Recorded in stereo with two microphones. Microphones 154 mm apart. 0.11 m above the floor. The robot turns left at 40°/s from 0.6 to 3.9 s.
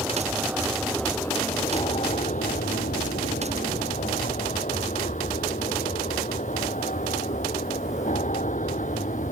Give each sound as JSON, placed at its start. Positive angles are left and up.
{"t": 0.0, "sound": "an aircraft", "side_deg": -10}